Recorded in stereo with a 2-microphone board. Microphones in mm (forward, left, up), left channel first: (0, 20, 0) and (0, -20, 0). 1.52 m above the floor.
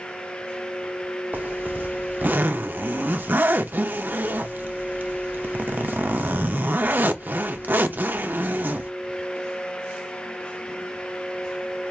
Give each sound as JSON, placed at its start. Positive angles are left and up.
{"t": 1.3, "sound": "a zipper", "side_deg": -45, "distance_m": 0.6}